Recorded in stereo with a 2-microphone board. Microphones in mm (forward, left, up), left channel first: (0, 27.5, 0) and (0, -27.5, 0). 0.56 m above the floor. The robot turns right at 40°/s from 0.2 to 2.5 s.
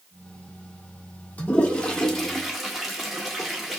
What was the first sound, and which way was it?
A toilet flushing, 30° left (ahead or behind).